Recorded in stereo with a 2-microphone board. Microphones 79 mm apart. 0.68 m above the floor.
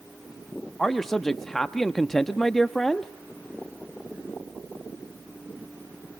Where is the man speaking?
5° left (ahead or behind), 0.7 m.